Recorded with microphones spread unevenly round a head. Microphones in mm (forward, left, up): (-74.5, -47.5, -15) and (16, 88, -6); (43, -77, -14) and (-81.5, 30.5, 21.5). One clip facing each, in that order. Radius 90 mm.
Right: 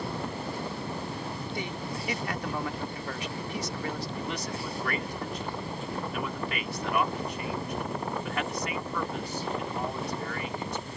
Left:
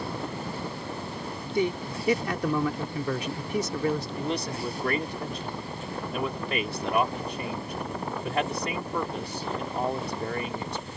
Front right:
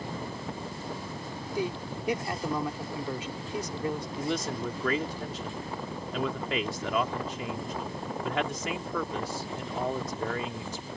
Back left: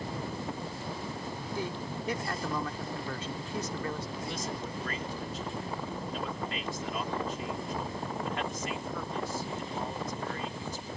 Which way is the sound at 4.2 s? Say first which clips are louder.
Left 4 dB, front right 5 dB; 10° right.